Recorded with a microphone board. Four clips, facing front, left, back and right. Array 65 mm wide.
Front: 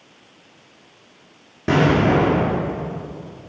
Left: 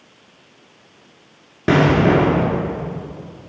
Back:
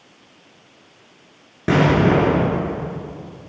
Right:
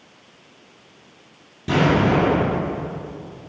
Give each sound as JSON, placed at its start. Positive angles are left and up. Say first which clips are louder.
{"t": 1.7, "sound": "an explosion", "louder": "left 4 dB, back 1 dB", "azimuth_deg": 105, "distance_m": 1.4}